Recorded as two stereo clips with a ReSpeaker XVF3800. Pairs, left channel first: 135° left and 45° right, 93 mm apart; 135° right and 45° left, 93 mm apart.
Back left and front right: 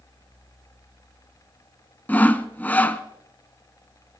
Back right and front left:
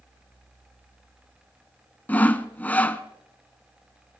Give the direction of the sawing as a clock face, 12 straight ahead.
6 o'clock.